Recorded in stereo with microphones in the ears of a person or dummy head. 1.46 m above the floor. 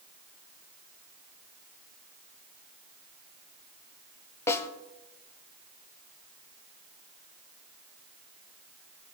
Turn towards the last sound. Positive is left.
turn(degrees=10)  # may be behind; listen again after turning